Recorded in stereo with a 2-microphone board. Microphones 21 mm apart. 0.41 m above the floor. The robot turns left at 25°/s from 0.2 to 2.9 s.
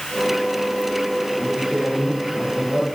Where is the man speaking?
105° right, 9 m; by 2.9 s 140° right, 9 m.